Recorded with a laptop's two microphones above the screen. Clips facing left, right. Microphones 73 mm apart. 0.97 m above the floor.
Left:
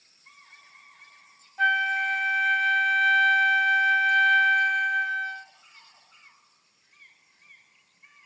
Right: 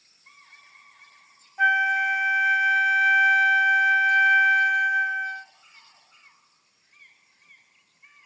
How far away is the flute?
About 0.6 m.